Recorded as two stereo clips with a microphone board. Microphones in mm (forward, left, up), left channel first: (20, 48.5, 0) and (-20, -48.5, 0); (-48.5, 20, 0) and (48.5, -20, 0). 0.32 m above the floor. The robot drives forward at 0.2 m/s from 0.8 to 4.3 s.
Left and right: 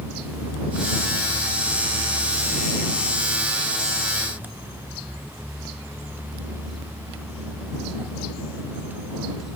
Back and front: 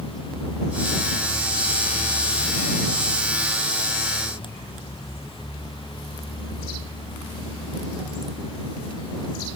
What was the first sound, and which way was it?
Only background noise.